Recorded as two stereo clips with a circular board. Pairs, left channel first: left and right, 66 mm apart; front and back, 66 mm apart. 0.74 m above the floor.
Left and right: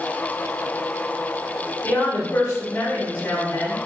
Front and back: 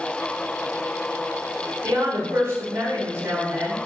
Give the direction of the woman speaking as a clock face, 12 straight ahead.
7 o'clock.